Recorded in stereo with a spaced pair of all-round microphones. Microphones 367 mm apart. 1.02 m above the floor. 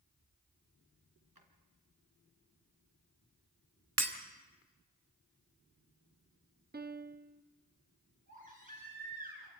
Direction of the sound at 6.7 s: 25° right (ahead or behind).